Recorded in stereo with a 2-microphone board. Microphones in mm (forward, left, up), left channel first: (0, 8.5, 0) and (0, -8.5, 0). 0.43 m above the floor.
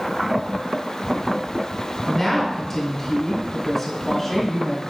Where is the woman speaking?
15° left (ahead or behind), 1.2 m.